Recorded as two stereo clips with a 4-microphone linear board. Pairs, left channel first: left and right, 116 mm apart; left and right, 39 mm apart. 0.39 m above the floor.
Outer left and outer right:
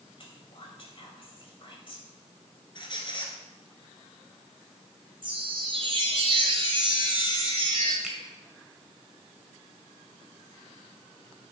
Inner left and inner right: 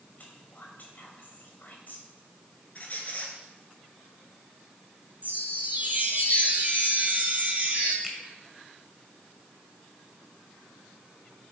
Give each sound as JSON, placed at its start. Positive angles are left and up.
{"t": 0.2, "sound": "whispering", "side_deg": 50, "distance_m": 2.0}
{"t": 2.8, "sound": "a squeak", "side_deg": 40, "distance_m": 2.0}
{"t": 5.2, "sound": "a chime", "side_deg": -50, "distance_m": 1.8}
{"t": 8.0, "sound": "a finger snap", "side_deg": -5, "distance_m": 1.5}